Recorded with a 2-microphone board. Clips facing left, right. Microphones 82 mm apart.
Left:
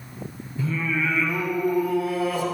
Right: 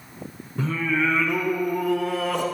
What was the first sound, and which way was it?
Singing, 70° right (ahead or behind).